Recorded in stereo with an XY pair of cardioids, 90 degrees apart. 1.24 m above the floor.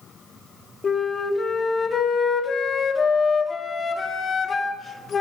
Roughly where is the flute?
Ahead left.